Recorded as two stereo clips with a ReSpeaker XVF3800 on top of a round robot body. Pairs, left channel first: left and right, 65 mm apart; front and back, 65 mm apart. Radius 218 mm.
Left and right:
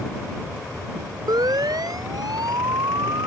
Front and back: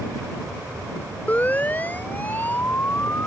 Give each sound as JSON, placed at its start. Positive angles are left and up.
{"t": 1.3, "sound": "a siren", "azimuth_deg": -65}